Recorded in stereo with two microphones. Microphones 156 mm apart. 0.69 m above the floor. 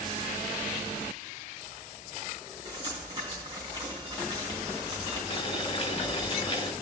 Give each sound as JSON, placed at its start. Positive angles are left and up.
{"t": 2.6, "sound": "dripping", "side_deg": -20, "distance_m": 4.0}
{"t": 5.3, "sound": "boiling", "side_deg": 40, "distance_m": 0.6}